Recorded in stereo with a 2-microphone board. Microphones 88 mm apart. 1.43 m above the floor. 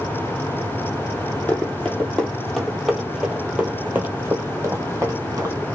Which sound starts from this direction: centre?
Running footsteps, at 1.5 s.